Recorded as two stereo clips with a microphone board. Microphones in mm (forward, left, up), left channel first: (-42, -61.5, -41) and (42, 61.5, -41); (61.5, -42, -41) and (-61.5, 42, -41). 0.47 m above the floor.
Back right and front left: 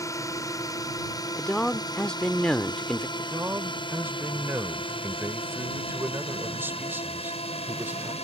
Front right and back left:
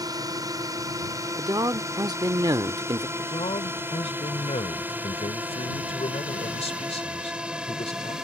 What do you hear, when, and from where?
0.0 s a drone: 175° right; by 8.2 s 130° right
1.4 s a man speaking: 160° left
3.2 s a man speaking: 15° right